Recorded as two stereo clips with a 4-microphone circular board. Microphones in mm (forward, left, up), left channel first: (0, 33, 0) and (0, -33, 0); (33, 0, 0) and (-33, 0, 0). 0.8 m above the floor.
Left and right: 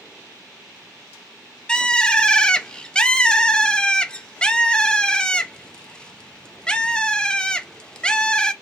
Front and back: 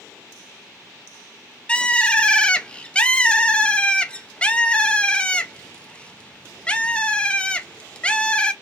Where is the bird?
40° left, 0.5 m.